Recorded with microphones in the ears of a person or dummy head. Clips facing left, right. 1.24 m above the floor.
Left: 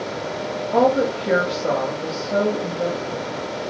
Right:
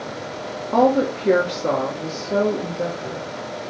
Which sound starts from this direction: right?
A woman speaking, at 0.7 s.